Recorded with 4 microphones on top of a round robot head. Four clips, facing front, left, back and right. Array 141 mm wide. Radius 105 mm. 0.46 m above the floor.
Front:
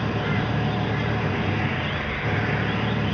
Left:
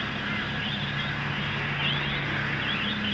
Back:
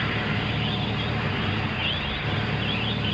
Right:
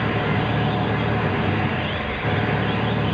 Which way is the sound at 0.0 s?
75° right.